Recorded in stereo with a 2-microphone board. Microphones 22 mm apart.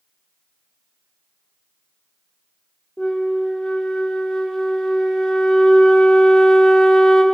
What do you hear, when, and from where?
3.0 s a flute: 35° left (ahead or behind), 1.0 m